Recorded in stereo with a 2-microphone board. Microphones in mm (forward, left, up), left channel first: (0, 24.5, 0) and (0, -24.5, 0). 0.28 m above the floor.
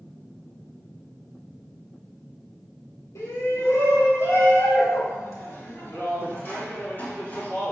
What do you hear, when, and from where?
3.1 s a shout: 70° left (ahead or behind), 2.5 m; by 7.7 s 30° left (ahead or behind), 3.5 m